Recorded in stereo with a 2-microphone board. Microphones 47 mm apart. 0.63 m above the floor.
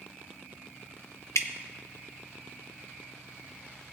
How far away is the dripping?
About 0.6 m.